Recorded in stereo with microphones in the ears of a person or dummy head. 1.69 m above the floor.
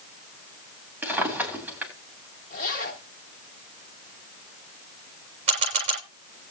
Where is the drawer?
5° right (ahead or behind), 3 m.